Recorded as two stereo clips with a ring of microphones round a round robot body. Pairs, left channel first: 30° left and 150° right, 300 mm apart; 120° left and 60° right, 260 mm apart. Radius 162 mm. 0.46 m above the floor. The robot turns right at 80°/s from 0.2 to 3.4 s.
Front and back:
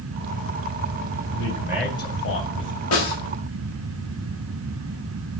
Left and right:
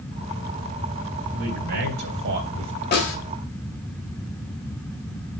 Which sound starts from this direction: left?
A snare drum, at 2.9 s.